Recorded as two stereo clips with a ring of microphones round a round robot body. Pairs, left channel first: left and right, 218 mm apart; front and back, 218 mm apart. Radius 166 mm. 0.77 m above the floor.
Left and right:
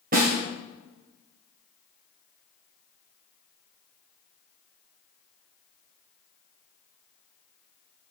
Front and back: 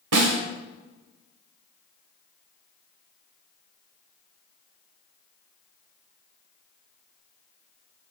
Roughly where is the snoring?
I don't hear snoring.